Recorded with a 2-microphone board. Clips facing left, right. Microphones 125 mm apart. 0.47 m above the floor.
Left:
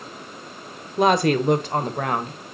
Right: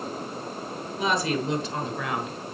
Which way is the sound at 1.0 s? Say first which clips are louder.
Left 8 dB; 55° left (ahead or behind).